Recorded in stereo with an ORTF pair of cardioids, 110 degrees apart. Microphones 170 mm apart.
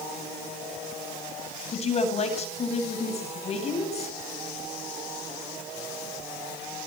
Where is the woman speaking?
40° left, 9 m.